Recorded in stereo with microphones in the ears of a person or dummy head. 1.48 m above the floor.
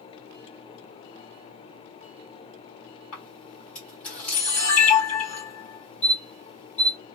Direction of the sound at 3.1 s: 30° left (ahead or behind).